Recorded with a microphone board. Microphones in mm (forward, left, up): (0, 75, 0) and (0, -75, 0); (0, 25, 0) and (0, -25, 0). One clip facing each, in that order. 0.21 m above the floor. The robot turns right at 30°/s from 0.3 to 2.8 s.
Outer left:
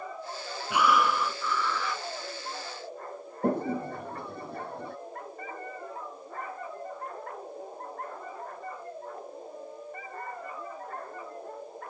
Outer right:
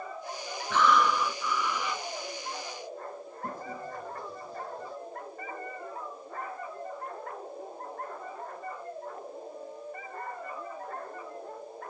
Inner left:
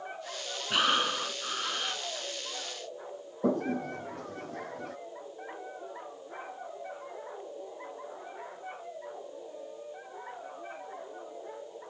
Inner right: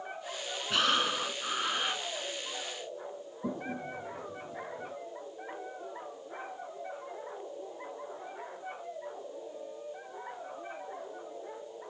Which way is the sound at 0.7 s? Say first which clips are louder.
Even, inner left 1 dB; 165° left.